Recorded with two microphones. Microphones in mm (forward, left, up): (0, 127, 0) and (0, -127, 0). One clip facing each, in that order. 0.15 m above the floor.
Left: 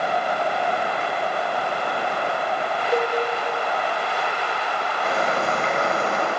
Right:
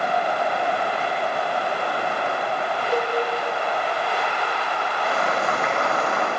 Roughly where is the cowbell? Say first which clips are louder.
Left 2 dB; centre.